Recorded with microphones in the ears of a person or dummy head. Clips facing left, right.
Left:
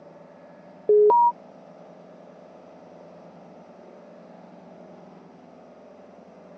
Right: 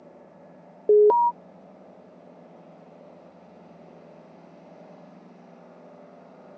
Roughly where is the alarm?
Centre.